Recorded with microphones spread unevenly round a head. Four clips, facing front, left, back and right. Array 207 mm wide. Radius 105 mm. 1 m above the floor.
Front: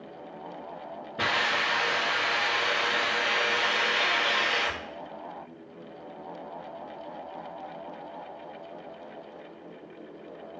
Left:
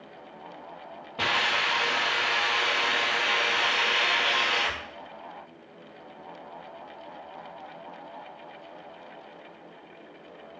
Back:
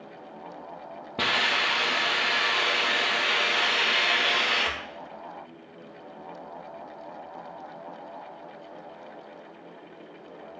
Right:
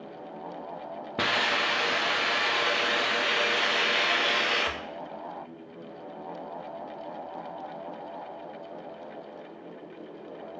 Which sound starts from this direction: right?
A hiss, at 1.2 s.